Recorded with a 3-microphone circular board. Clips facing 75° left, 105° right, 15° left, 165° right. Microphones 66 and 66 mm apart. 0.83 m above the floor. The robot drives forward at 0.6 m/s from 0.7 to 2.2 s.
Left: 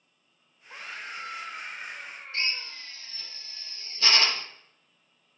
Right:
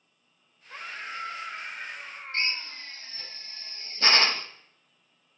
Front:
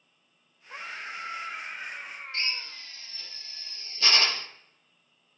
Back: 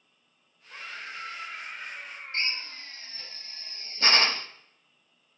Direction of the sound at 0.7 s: 45° right.